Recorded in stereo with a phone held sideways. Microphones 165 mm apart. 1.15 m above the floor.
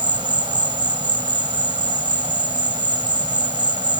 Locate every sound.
0.0 s an insect: 25° right (ahead or behind)